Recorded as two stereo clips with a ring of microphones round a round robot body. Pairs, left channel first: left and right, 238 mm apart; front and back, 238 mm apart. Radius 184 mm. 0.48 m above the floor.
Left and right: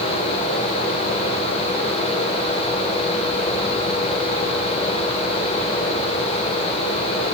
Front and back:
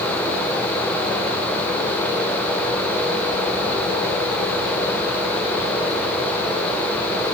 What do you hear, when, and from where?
Only background noise.